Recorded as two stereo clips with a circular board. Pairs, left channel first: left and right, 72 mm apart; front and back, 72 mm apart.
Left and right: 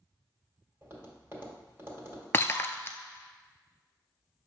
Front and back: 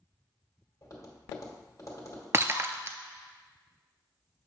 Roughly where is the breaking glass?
Behind left.